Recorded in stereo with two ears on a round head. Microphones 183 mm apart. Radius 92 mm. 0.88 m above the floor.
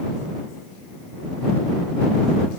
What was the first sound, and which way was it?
Only background noise.